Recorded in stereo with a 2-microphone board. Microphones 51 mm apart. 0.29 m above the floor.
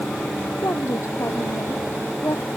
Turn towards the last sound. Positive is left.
turn(degrees=80)